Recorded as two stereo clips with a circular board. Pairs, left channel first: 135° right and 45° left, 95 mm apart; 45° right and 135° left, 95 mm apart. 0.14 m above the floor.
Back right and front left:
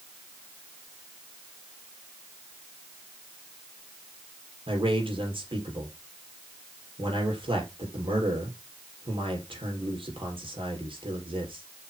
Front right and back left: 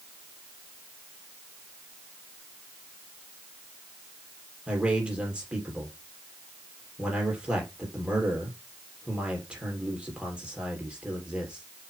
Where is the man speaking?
55° left, 4.5 m.